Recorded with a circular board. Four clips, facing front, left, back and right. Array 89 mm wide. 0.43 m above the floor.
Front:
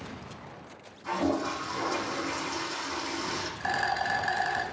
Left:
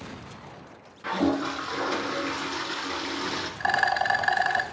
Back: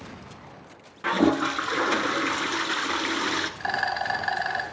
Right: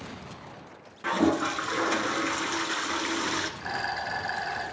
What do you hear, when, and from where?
1.0 s a toilet flushing: 165° right, 1.0 m
3.6 s a rattle: 105° left, 2 m